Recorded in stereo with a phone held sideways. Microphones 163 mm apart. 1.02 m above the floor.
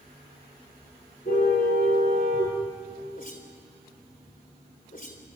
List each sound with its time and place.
1.2 s a car horn: 60° left (ahead or behind), 9.5 m
3.1 s a whoosh: 55° left (ahead or behind), 3.5 m